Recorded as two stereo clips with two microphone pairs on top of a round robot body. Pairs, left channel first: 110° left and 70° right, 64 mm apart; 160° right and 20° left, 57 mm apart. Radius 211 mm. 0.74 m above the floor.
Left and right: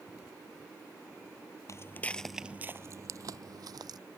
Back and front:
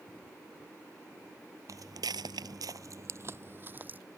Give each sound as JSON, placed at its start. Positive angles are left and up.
{"t": 1.7, "sound": "footsteps", "azimuth_deg": 60}